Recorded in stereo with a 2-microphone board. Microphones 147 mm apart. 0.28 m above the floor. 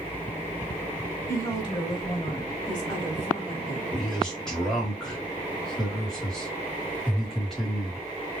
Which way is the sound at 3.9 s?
5° left (ahead or behind).